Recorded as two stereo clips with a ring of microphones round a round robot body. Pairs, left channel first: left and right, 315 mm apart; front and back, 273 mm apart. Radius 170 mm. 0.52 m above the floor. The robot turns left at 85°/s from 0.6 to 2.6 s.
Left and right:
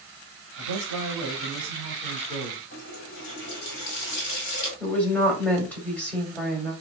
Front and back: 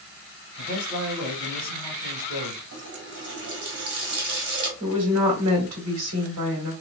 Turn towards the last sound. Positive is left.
turn(degrees=175)